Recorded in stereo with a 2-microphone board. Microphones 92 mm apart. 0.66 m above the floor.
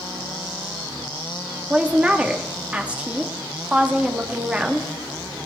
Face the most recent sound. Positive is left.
turn(degrees=-15)  # may be behind; listen again after turning